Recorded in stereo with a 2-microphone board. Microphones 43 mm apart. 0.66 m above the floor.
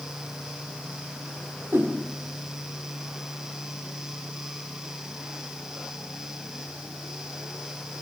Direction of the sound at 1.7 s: 70° right (ahead or behind).